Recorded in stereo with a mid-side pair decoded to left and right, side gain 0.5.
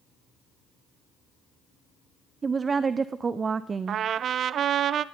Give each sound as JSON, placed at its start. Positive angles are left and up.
{"t": 2.4, "sound": "a woman speaking", "azimuth_deg": -35, "distance_m": 0.6}
{"t": 3.9, "sound": "a trumpet", "azimuth_deg": -55, "distance_m": 0.6}